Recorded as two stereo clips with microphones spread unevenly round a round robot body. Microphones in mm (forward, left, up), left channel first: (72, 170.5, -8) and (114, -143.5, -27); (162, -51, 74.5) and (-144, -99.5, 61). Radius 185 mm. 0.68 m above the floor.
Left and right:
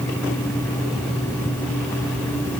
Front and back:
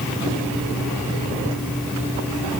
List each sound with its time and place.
Only background noise.